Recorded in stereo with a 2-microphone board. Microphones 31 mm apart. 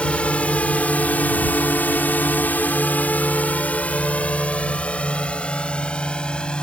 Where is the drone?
40° left (ahead or behind); by 6.6 s 30° left (ahead or behind).